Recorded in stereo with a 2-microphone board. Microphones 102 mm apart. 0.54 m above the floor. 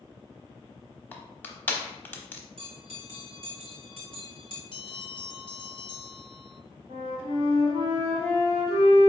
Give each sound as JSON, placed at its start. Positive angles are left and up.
{"t": 1.1, "sound": "crushing", "side_deg": 15, "distance_m": 0.8}
{"t": 2.6, "sound": "a bell", "side_deg": -60, "distance_m": 1.6}
{"t": 4.7, "sound": "a bell", "side_deg": 55, "distance_m": 0.6}
{"t": 6.9, "sound": "a flute", "side_deg": -65, "distance_m": 2.0}